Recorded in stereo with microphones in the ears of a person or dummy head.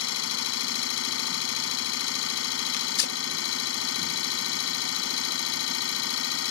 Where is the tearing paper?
65° left (ahead or behind).